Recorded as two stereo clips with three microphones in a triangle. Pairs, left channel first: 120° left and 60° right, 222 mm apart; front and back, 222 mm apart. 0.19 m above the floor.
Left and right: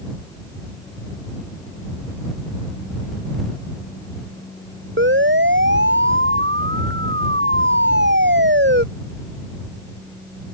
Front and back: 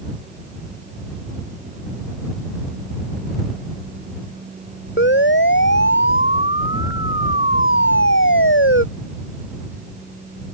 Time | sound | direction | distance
5.0 | a siren | 30° right | ?